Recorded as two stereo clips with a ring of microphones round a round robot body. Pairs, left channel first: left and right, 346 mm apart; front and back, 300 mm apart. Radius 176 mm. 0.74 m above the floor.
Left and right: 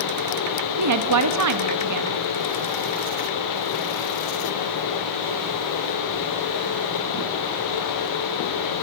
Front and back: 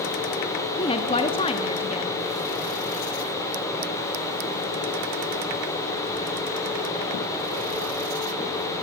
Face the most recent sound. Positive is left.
turn(degrees=-70)